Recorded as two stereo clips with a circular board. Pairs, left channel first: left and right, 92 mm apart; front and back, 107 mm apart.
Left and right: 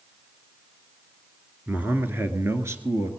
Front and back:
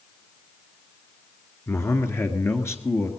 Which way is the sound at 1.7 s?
35° right.